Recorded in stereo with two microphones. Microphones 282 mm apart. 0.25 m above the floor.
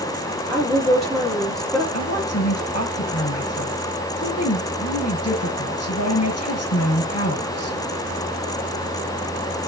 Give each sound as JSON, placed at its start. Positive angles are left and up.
{"t": 0.5, "sound": "a woman speaking", "side_deg": 0, "distance_m": 8.0}
{"t": 1.9, "sound": "a woman speaking", "side_deg": 55, "distance_m": 4.5}